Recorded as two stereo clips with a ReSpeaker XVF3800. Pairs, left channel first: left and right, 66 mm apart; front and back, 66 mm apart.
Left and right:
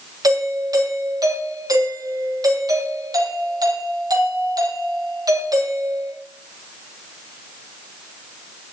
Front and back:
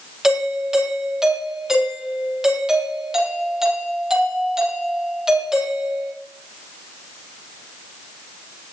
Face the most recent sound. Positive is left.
turn(degrees=-100)